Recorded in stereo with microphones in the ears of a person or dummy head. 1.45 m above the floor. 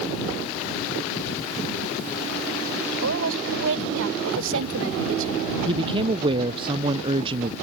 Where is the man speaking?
25° right (ahead or behind).